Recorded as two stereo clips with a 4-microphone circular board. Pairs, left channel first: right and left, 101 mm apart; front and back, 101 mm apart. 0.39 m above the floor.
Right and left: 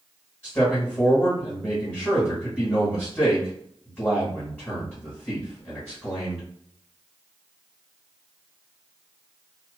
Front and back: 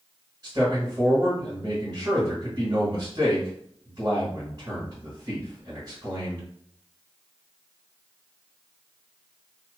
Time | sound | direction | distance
0.4 | a man speaking | 160° right | 1.3 m